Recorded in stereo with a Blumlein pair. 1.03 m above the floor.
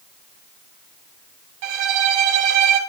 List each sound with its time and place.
1.6 s a violin: 45° right, 2.5 m